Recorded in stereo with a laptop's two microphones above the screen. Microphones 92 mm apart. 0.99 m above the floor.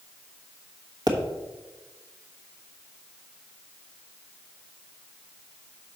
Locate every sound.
1.1 s a pop: 50° right (ahead or behind), 1.2 m